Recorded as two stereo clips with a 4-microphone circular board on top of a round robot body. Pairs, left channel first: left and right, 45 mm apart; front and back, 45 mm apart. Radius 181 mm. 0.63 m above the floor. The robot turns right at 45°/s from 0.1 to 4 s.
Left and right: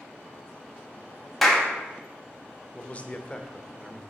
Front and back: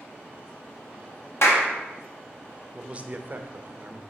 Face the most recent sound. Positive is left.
turn(degrees=180)